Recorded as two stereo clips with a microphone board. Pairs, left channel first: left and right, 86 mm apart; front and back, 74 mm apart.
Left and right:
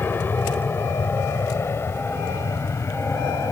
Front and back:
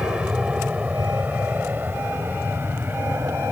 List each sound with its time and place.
0.0 s an aircraft: 120° left; by 3.5 s 135° left